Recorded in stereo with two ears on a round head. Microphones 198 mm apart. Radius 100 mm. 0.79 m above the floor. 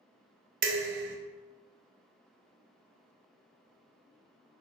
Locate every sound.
0.6 s dishes clattering: 50° right (ahead or behind), 0.6 m